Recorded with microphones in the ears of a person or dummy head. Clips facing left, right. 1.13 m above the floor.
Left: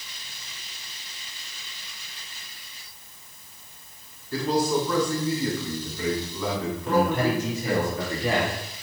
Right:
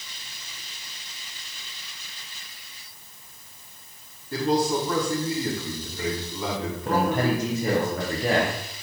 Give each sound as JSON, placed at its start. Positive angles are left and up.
{"t": 4.3, "sound": "a man speaking", "side_deg": -25, "distance_m": 2.0}
{"t": 6.8, "sound": "a man speaking", "side_deg": -35, "distance_m": 0.8}